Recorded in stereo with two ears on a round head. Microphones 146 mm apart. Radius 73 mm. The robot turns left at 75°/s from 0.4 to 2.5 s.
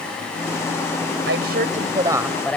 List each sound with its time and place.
1.3 s a woman speaking: 95° right; by 2.6 s 170° left